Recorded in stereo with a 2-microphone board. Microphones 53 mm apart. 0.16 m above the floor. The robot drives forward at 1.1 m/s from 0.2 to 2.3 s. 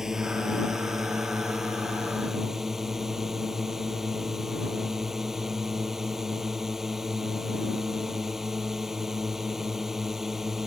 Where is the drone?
10° right (ahead or behind).